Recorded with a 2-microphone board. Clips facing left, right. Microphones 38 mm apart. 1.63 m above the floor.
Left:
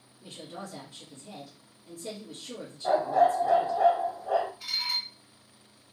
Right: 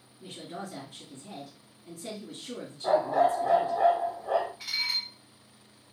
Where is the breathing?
No breathing in this recording.